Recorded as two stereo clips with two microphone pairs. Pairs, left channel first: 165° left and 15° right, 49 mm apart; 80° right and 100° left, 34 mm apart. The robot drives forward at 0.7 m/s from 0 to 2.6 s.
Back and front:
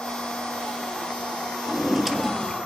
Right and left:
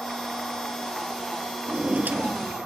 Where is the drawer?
55° left, 1.3 m; by 2.7 s 90° left, 1.1 m.